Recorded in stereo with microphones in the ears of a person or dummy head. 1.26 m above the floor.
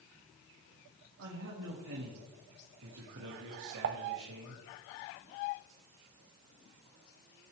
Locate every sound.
1.2 s a man speaking: 70° right (ahead or behind), 2.0 m
3.8 s dishes clattering: 55° right (ahead or behind), 0.5 m